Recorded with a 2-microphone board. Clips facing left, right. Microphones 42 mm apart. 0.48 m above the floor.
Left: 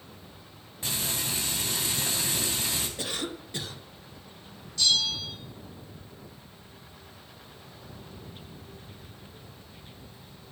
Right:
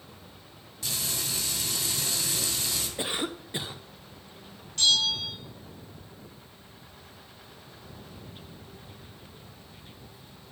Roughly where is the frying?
Left.